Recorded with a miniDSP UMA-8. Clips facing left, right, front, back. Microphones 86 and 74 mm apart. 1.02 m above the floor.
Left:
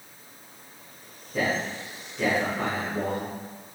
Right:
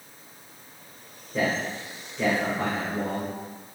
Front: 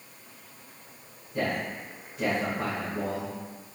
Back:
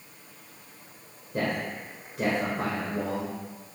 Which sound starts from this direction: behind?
A man speaking, at 1.3 s.